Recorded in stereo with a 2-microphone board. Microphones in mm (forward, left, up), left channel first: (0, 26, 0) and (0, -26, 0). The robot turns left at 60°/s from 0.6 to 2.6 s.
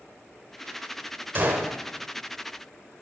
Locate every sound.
1.4 s a gunshot: 45° right (ahead or behind), 1.3 m